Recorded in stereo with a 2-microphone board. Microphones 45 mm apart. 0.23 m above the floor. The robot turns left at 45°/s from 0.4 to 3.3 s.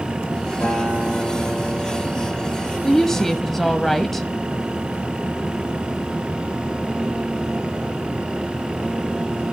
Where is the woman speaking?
10° left (ahead or behind), 1.0 m; by 4.3 s 5° left (ahead or behind), 1.0 m.